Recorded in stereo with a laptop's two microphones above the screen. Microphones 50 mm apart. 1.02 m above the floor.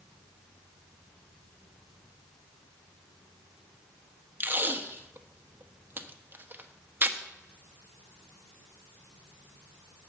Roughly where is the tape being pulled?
Right.